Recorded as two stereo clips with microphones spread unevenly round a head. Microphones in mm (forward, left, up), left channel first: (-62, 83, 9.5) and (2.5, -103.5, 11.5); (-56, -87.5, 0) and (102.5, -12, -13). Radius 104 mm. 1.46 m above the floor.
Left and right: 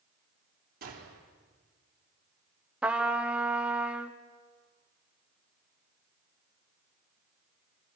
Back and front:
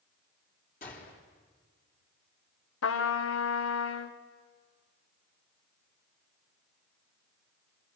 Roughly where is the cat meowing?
I don't hear a cat meowing.